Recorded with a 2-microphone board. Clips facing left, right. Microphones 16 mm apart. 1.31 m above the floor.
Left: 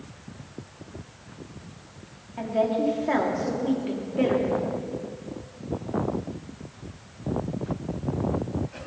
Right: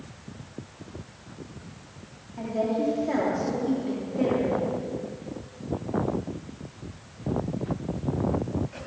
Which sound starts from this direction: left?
A woman speaking, at 2.4 s.